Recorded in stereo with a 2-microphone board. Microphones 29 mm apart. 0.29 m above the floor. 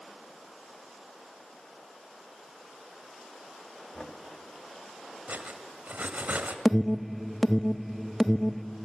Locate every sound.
3.9 s knocking: 35° left (ahead or behind), 1.8 m
5.3 s cutlery clinking: 75° right (ahead or behind), 1.5 m
6.7 s an alarm: 5° right (ahead or behind), 0.7 m